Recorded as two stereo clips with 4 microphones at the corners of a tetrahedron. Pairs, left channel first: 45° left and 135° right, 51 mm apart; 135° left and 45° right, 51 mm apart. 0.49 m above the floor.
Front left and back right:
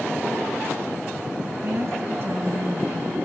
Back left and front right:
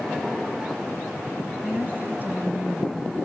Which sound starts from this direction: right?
A woman speaking, at 1.6 s.